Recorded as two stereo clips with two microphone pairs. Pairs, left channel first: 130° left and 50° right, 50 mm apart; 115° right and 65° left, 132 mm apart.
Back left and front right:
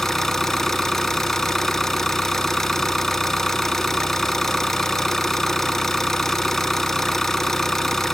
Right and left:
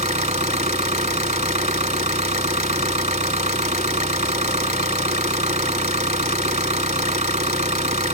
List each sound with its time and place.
0.0 s an engine running: 50° left, 0.9 m